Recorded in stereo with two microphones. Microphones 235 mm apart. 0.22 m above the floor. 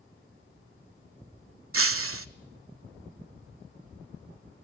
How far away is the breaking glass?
About 0.6 m.